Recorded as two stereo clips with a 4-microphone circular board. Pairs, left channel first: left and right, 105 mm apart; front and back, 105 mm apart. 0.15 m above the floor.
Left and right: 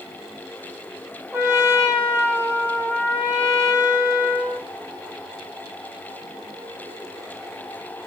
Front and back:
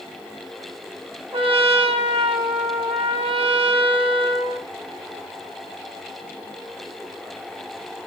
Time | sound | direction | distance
1.3 | a trumpet | 155° right | 2 m